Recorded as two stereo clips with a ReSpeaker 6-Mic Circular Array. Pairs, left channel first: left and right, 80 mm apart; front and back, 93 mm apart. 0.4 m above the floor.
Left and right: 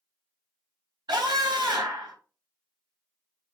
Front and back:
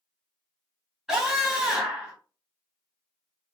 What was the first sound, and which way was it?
A scream, 100° right.